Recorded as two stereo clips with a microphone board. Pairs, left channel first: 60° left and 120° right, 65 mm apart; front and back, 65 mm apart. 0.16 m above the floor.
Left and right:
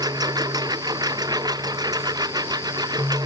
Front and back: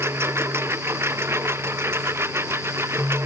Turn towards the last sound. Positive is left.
turn(degrees=-130)